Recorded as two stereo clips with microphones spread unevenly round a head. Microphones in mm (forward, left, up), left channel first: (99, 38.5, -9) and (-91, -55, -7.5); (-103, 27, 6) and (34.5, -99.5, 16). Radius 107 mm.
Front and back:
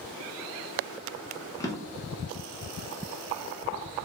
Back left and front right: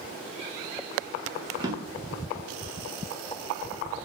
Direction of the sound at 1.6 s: 30° right.